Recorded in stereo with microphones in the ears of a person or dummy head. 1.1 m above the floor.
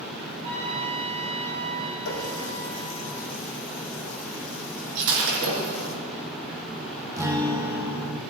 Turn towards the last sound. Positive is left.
turn(degrees=-15)  # may be behind; listen again after turning